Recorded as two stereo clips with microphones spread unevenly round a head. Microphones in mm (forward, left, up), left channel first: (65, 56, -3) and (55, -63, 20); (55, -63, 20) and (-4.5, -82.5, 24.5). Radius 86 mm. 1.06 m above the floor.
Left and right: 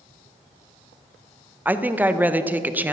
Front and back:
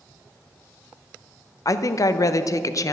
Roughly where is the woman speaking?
Ahead.